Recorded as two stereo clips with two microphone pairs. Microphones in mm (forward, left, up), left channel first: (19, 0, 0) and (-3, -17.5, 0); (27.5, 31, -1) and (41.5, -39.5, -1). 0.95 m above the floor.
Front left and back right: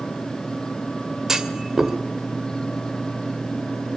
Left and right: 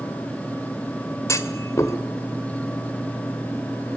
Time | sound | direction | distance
1.3 | a clunk | 150° left | 2.0 m